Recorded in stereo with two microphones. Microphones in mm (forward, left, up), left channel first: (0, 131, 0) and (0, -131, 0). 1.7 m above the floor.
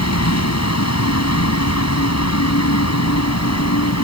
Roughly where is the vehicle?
Left.